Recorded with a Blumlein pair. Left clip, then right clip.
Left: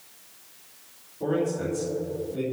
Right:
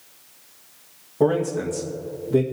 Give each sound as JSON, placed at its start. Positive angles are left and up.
{"t": 1.2, "sound": "a man speaking", "azimuth_deg": -40, "distance_m": 1.9}